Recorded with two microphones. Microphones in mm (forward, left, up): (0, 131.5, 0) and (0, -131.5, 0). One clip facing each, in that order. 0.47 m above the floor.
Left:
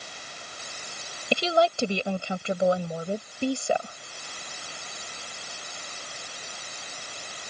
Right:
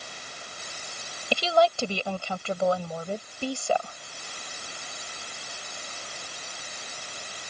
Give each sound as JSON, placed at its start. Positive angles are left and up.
{"t": 1.3, "sound": "a woman speaking", "side_deg": 20}